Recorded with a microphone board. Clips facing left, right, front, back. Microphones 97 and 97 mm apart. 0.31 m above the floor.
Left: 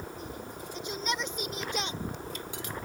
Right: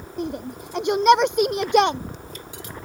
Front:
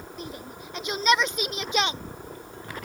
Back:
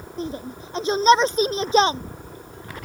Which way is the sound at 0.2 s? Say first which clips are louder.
Right 11 dB, back 10 dB; 120° right.